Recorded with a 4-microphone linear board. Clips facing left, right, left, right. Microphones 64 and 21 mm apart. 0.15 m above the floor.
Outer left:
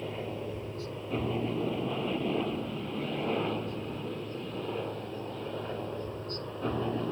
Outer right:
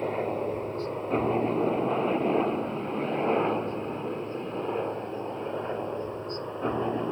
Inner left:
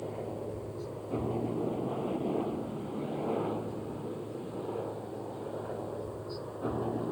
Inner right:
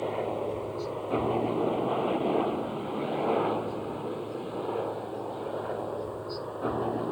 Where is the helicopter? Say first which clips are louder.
Outer right 8 dB, inner right 7 dB; 45° right (ahead or behind); by 7.1 s 25° right (ahead or behind).